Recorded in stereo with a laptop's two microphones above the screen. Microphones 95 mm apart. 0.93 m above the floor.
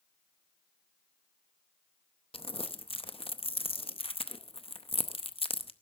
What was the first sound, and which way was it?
Crumpling, 75° left (ahead or behind).